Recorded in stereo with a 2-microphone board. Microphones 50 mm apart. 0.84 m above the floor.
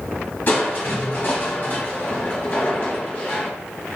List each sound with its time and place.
0.5 s crushing: 35° left (ahead or behind), 1.0 m